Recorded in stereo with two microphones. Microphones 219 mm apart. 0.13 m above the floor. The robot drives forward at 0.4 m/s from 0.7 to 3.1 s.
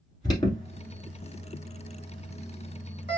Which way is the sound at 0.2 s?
20° left (ahead or behind).